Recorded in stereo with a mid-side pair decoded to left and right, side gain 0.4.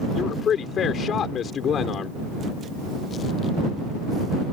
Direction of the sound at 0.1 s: 65° left.